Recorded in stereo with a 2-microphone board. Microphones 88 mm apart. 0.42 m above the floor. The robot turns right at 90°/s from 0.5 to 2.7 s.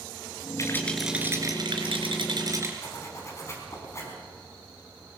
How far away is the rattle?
About 3 m.